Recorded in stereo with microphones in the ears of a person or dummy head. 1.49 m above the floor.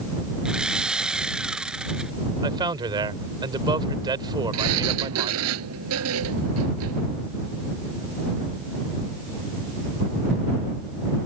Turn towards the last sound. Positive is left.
turn(degrees=-75)  # may be behind; listen again after turning